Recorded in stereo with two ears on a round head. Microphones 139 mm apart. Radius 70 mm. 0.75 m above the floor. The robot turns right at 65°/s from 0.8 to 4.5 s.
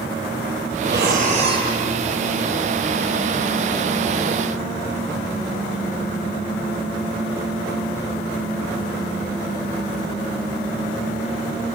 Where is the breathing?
80° right, 6.5 m; by 1.7 s 25° right, 6.5 m.